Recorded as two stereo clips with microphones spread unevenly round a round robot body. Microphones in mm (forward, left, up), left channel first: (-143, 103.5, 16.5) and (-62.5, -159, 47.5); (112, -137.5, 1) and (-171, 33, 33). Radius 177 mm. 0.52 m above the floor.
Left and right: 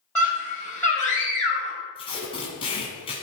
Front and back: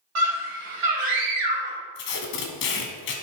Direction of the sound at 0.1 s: 170° right.